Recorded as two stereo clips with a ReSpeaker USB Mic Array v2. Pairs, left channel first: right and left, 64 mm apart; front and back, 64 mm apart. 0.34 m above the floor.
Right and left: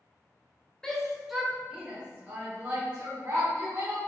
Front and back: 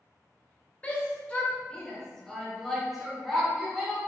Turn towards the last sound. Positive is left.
turn(degrees=100)